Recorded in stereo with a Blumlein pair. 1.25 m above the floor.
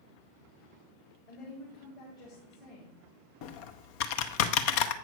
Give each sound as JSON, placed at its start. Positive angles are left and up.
{"t": 1.3, "sound": "a woman speaking", "azimuth_deg": 45, "distance_m": 3.5}
{"t": 3.4, "sound": "typing on a keyboard", "azimuth_deg": 45, "distance_m": 0.6}